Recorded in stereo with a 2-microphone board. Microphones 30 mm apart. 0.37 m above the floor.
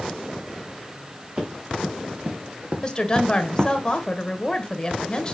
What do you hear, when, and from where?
1.4 s running footsteps: 35° right (ahead or behind), 3 m
2.8 s a woman speaking: 25° left (ahead or behind), 1.2 m